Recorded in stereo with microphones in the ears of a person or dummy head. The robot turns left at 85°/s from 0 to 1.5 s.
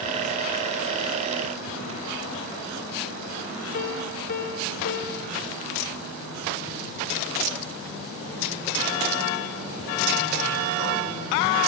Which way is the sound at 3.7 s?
45° left (ahead or behind).